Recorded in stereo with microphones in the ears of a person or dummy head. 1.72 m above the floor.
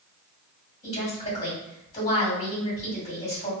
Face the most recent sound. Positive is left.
turn(degrees=30)  # may be behind; listen again after turning